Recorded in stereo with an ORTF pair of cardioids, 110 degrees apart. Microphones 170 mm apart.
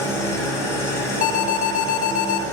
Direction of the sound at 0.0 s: 15° left.